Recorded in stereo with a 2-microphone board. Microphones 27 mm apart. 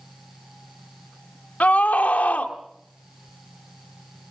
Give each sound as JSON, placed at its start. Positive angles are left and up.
{"t": 1.6, "sound": "a scream", "side_deg": 70, "distance_m": 2.5}